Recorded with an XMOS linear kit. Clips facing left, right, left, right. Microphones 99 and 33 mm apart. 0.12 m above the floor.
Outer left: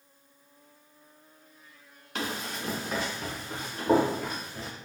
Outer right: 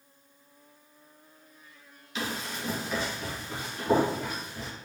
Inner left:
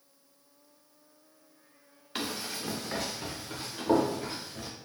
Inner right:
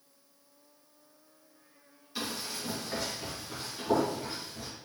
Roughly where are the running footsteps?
Left.